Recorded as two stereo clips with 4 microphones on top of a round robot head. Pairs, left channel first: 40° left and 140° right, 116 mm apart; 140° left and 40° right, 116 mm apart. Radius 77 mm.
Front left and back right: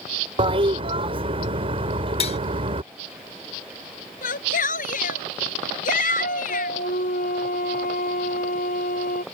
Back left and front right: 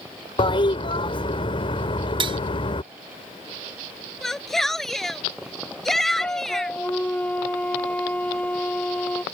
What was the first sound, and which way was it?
A toilet flushing, straight behind.